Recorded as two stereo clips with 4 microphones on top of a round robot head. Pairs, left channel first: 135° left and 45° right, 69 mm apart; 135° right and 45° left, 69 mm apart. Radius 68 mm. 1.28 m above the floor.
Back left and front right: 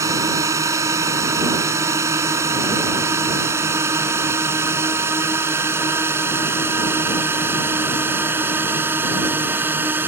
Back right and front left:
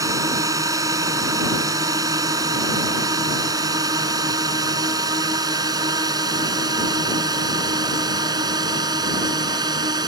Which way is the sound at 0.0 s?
Straight ahead.